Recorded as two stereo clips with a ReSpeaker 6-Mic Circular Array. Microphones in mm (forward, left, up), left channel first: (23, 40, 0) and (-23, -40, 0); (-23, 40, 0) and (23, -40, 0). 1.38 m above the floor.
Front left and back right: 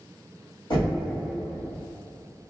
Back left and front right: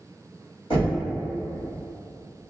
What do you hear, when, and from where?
0.7 s knocking: 90° left, 1.6 m